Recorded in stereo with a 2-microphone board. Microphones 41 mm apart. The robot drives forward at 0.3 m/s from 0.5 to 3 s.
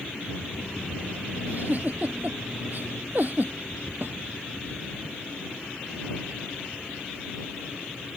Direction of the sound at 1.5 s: 40° right (ahead or behind).